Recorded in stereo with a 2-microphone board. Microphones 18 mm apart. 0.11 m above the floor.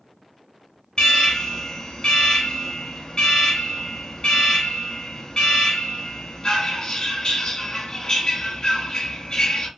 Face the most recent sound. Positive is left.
turn(degrees=45)  # may be behind; listen again after turning